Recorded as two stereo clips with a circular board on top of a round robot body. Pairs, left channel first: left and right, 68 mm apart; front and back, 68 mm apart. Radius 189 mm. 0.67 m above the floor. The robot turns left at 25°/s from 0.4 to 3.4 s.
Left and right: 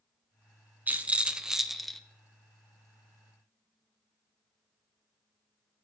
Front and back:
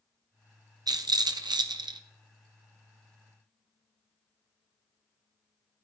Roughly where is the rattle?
Behind right.